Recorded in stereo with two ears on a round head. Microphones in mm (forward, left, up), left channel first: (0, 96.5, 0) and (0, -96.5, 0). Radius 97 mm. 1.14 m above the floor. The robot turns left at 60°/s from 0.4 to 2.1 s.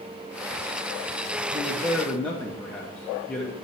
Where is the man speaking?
155° right, 0.8 m; by 3.5 s 170° left, 0.8 m.